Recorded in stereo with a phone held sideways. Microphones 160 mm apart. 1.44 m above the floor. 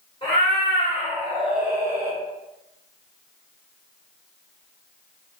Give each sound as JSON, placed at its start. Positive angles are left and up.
{"t": 0.2, "sound": "a cat meowing", "side_deg": 35, "distance_m": 1.2}